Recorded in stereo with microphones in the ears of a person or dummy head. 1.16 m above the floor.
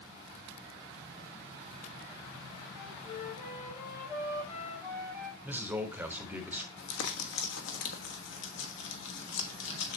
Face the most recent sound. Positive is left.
turn(degrees=70)  # may be behind; listen again after turning